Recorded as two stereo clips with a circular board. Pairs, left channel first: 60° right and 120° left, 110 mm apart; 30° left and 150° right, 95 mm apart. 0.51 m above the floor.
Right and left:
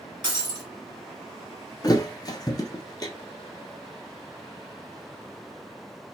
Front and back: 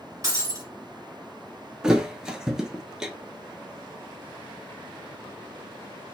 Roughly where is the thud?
Right.